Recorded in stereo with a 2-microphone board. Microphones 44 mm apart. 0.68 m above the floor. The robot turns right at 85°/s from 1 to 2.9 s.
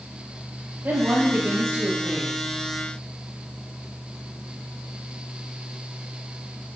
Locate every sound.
0.8 s a woman speaking: 120° right, 4 m; by 2.4 s straight ahead, 4 m